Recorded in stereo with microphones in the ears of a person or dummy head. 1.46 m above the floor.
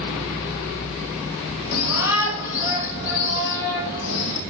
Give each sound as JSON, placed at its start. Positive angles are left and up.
{"t": 1.7, "sound": "a shout", "side_deg": 75, "distance_m": 2.5}